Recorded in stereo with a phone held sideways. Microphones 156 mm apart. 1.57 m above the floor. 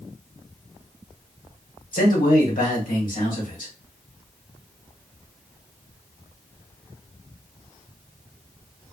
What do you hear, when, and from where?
1.9 s a man speaking: 60° left (ahead or behind), 1.4 m